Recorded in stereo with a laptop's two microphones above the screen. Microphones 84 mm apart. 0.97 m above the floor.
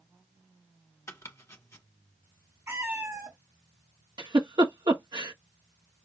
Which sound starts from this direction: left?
Chopping, at 1.1 s.